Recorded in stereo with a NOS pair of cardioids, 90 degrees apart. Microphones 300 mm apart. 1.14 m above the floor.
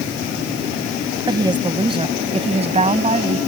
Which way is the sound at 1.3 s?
15° right.